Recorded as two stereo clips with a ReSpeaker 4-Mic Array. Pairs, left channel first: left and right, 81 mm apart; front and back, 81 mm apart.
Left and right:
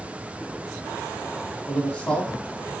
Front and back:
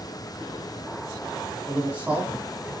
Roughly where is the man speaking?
Behind left.